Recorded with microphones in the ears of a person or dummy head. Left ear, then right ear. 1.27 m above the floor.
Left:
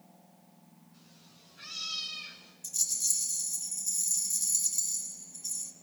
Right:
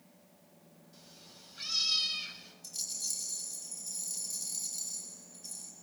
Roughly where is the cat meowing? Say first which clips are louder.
Right 6 dB; right.